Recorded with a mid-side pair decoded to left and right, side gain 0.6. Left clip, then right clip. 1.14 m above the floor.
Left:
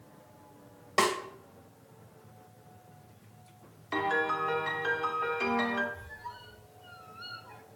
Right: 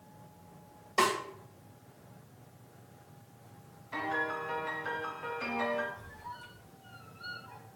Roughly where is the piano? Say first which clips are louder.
Left 5 dB; ahead left.